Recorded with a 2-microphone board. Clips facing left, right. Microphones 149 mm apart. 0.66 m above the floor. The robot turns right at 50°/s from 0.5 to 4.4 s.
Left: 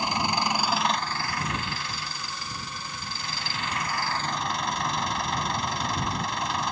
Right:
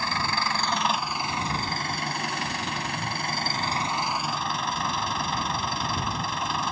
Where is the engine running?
165° left; by 6.7 s straight ahead.